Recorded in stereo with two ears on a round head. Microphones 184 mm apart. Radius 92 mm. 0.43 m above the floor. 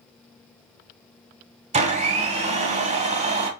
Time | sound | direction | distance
1.7 | a blender | 30° right (ahead or behind) | 0.8 m